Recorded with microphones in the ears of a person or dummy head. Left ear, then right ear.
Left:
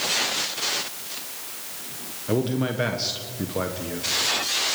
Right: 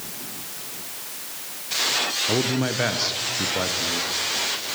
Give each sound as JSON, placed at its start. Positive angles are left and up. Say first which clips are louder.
{"t": 2.3, "sound": "a man speaking", "louder": "right 2 dB", "side_deg": -15, "distance_m": 1.3}